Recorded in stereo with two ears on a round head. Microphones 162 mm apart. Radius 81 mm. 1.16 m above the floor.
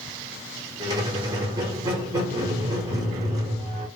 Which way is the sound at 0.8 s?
20° right (ahead or behind).